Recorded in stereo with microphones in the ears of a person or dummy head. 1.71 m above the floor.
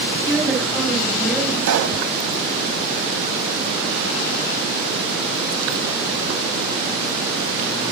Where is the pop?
70° right (ahead or behind), 1.4 m.